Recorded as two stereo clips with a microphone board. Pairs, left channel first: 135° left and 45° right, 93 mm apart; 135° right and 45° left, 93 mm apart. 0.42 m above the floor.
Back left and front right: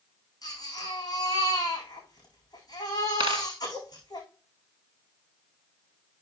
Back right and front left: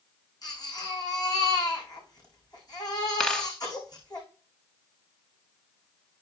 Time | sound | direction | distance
0.4 | a baby crying | straight behind | 8.5 m
3.2 | a dropped coin | 55° right | 0.8 m